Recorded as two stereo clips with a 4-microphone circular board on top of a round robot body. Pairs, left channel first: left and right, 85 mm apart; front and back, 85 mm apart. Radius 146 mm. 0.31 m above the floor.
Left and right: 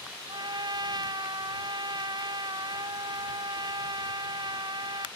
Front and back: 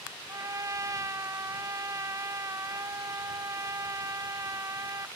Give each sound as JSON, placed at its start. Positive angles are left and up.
{"t": 0.3, "sound": "a trumpet", "azimuth_deg": -125}